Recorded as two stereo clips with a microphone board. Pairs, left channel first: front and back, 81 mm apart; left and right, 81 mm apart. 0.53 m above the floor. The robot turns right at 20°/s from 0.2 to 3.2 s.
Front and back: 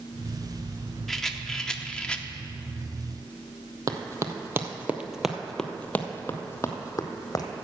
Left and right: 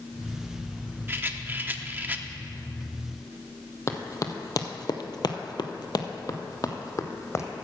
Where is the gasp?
I don't hear a gasp.